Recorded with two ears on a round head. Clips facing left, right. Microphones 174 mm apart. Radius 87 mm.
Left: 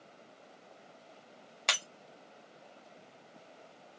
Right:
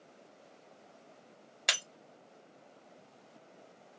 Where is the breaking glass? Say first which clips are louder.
Left 1 dB; 15° right (ahead or behind), 0.9 m.